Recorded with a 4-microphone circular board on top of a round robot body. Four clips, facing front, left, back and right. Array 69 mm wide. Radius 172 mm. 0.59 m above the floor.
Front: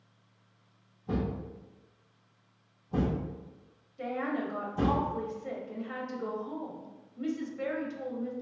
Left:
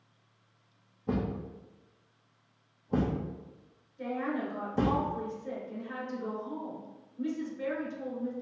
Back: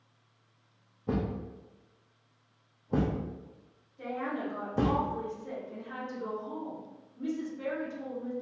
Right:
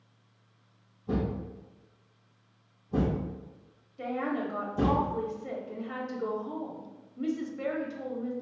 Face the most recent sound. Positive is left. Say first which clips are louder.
# right 2 dB, front 2 dB
turn(degrees=-65)